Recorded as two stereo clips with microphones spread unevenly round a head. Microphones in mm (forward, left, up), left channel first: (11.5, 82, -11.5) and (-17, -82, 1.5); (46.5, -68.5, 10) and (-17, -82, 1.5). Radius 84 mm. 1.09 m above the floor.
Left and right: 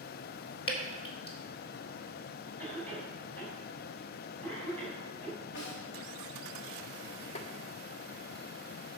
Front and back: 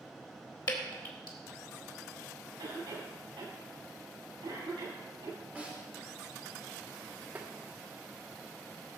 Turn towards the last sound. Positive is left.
turn(degrees=125)